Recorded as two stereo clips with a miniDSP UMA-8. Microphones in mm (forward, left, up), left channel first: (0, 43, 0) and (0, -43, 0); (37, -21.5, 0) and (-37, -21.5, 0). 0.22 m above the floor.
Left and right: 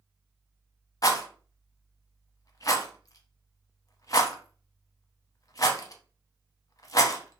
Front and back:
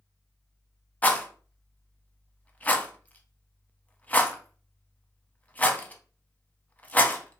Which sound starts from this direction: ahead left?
A rattle, at 1.0 s.